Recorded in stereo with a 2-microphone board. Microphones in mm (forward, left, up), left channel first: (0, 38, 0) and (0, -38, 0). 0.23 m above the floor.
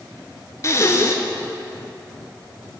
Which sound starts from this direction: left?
Breathing, at 0.6 s.